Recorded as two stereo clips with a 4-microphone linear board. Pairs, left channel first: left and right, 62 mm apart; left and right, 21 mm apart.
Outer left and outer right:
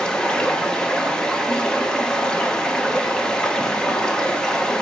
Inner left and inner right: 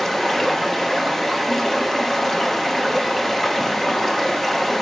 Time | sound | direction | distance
0.0 | running water | 15° left (ahead or behind) | 0.8 m